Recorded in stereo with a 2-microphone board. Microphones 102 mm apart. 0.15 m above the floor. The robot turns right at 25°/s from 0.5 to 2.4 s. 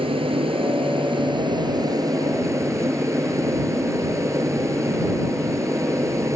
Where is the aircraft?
80° right; by 6.4 s 35° right.